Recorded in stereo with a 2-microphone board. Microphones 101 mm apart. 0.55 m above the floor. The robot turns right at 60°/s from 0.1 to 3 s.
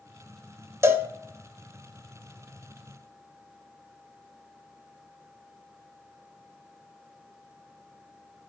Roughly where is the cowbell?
Right.